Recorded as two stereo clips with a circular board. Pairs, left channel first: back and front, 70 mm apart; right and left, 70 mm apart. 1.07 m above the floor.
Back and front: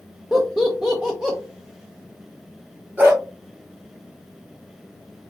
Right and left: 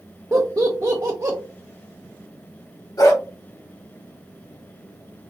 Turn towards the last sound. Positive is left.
turn(degrees=-65)